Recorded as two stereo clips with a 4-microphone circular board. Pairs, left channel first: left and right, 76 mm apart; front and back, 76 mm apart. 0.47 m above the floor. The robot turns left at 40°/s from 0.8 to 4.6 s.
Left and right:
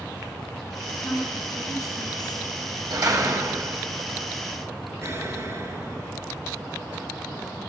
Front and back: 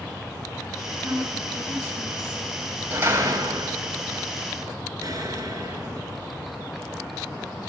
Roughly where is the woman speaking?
Behind left.